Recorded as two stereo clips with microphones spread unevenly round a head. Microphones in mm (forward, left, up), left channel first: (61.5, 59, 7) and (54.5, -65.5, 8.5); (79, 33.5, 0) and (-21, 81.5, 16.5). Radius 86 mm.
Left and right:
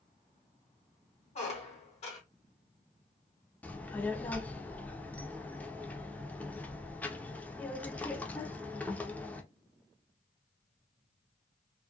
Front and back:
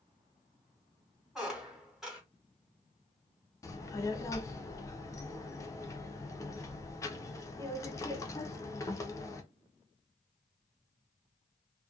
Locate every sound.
1.4 s a squeak: 75° left, 1.0 m
3.6 s a child speaking: 20° left, 0.6 m